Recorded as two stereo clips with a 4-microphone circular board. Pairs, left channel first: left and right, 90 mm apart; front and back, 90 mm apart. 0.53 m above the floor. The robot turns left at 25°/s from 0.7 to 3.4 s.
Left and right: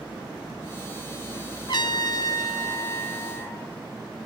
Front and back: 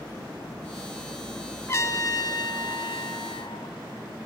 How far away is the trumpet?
About 1.2 m.